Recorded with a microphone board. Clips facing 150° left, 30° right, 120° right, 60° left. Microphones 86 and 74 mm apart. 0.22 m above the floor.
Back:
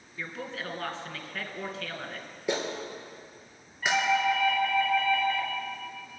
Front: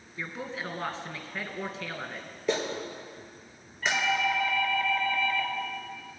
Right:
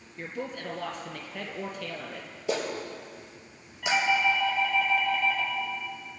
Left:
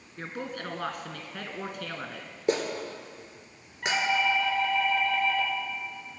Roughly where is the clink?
I don't hear a clink.